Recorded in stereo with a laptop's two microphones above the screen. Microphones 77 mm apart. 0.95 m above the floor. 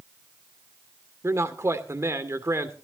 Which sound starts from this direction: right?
A man speaking, at 1.2 s.